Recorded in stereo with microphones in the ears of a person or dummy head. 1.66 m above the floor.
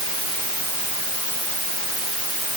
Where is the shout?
No shout in this recording.